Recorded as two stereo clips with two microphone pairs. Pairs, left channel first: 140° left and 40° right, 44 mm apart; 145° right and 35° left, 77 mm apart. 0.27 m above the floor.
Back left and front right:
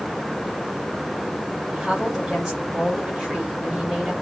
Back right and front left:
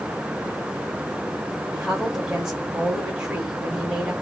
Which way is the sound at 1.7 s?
25° right.